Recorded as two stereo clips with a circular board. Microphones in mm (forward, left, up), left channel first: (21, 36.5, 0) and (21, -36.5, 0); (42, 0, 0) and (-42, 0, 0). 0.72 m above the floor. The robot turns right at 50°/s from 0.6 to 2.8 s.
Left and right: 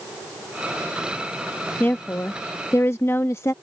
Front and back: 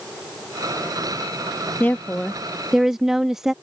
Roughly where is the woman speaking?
Ahead left.